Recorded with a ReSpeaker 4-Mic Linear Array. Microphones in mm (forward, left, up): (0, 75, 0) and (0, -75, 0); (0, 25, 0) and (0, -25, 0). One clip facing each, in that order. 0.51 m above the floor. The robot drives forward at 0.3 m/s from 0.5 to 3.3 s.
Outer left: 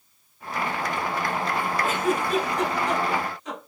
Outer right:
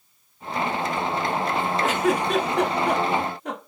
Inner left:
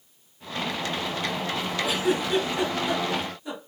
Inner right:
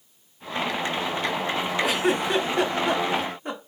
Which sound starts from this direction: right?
A giggle, at 1.8 s.